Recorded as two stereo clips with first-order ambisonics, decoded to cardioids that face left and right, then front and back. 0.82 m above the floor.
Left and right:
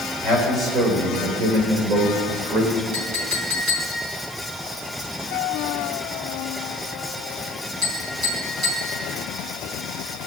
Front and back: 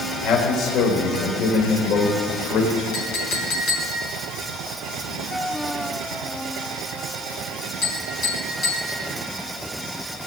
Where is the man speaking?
25° right, 3.5 m; by 2.8 s 50° right, 3.5 m.